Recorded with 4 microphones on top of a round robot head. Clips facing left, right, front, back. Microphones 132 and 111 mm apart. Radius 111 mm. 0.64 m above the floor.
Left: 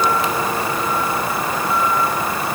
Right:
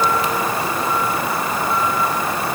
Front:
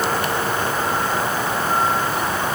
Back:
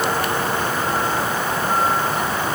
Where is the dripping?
No dripping in this recording.